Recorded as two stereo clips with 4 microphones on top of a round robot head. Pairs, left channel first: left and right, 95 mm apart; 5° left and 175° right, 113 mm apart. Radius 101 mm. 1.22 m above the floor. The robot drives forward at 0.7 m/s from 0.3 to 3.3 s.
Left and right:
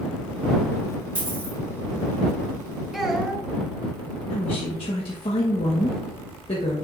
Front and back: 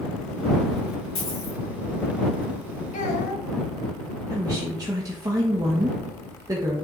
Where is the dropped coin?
20° right, 3.5 m; by 1.6 s 25° right, 3.5 m.